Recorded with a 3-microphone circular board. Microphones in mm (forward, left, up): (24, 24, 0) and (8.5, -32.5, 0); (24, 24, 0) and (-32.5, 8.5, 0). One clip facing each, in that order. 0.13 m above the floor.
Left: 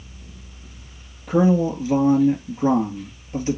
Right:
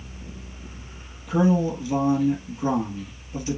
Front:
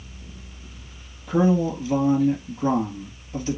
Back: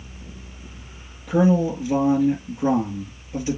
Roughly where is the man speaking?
Behind left.